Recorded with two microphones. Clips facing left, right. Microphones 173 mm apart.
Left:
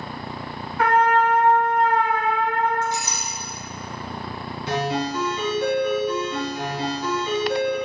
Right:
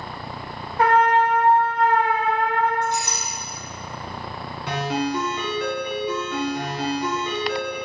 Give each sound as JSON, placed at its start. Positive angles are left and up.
{"t": 0.8, "sound": "a trumpet", "side_deg": -35, "distance_m": 1.3}
{"t": 2.8, "sound": "a clink", "side_deg": -65, "distance_m": 2.5}
{"t": 4.7, "sound": "a ringtone", "side_deg": -65, "distance_m": 1.9}